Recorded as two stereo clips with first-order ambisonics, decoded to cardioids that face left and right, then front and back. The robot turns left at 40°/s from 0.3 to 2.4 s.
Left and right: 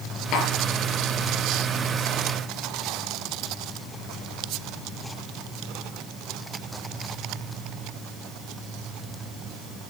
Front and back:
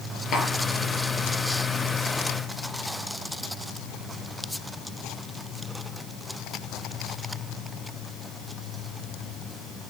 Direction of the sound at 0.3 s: 55° left.